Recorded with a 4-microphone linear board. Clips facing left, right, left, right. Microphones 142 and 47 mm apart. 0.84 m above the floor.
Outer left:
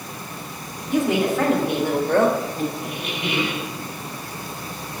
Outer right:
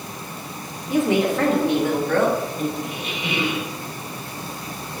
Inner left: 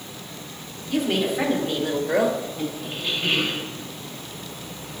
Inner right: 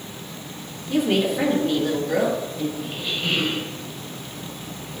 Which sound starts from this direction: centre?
A woman speaking, at 0.9 s.